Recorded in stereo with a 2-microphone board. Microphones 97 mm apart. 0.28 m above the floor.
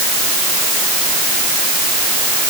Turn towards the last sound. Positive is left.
No sound to turn to.